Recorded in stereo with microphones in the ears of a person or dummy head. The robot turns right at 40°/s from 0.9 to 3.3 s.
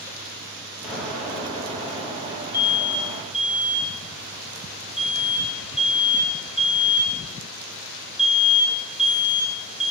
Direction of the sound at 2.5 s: 20° left (ahead or behind).